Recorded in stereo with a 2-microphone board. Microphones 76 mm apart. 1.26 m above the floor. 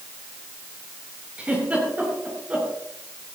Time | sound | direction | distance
1.4 | a giggle | 15° right (ahead or behind) | 7.5 m